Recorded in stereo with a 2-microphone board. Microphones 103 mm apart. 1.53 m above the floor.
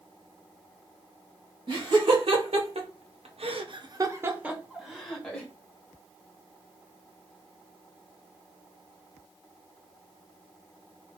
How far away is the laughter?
About 1.6 m.